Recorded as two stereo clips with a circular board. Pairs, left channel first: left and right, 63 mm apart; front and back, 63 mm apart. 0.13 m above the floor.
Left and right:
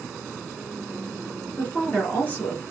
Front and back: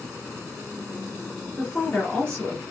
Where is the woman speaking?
60° left, 1.6 m.